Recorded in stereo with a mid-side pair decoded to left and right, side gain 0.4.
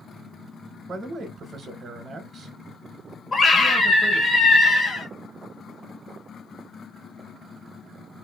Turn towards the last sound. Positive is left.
turn(degrees=35)